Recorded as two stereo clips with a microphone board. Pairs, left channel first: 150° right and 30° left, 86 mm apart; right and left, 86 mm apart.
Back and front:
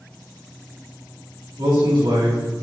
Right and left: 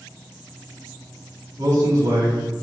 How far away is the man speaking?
About 3 m.